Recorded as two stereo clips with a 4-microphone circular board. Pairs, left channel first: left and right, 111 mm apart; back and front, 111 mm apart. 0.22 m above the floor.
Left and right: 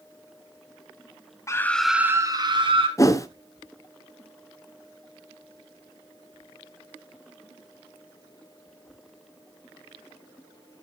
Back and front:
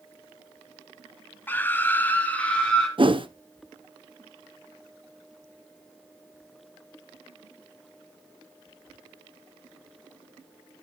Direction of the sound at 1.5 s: 120° left.